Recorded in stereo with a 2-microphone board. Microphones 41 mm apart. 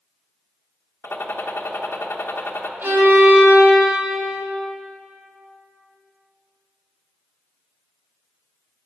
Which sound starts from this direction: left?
A gunshot, at 1.0 s.